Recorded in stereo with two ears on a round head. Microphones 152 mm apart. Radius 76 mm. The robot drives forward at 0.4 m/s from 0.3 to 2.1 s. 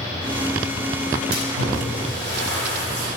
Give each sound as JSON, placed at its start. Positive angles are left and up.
{"t": 1.3, "sound": "a splash", "side_deg": -75, "distance_m": 4.0}